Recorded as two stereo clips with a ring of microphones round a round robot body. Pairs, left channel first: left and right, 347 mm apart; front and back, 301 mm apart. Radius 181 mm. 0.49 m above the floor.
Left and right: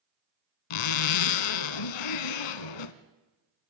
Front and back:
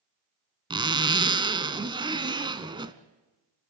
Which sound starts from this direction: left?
A zipper, at 0.7 s.